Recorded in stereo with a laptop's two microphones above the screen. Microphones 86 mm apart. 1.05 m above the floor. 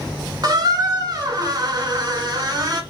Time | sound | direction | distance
0.4 | a squeak | 50° right (ahead or behind) | 0.7 m